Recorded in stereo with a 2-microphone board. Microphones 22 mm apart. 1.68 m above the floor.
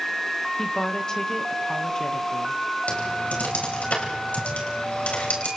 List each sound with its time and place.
0.6 s a woman speaking: 30° left (ahead or behind), 2 m
2.9 s typing on a keyboard: 80° left, 5 m